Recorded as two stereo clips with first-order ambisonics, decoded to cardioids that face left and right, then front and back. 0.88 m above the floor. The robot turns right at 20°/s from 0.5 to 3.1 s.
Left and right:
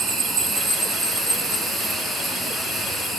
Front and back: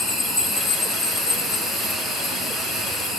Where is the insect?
50° right, 2 m; by 3.2 s 5° left, 2 m.